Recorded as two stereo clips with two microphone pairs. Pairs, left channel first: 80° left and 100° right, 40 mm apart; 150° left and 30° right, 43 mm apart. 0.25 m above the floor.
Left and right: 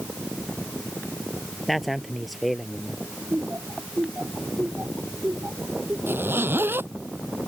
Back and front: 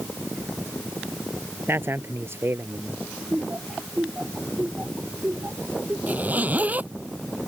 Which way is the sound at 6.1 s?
80° right.